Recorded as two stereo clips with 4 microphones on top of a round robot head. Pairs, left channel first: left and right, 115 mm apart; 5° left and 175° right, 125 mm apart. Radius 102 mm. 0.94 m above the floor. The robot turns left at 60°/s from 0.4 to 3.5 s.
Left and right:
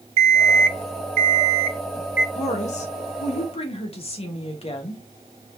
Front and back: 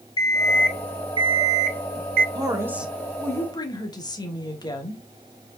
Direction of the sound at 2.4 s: 130° left.